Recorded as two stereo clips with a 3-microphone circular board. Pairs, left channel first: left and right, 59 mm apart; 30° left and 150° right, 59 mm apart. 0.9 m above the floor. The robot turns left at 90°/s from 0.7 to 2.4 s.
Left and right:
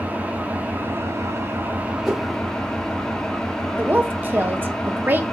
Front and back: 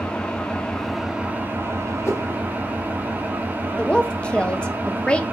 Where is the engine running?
40° right, 0.8 m; by 5.3 s 165° left, 0.8 m.